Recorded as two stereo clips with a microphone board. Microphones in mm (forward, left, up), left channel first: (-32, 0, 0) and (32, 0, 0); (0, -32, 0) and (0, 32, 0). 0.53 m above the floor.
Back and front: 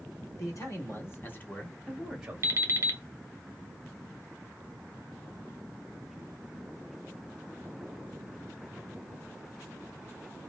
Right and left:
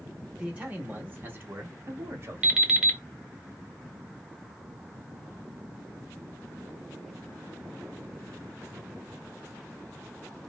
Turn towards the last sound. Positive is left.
turn(degrees=20)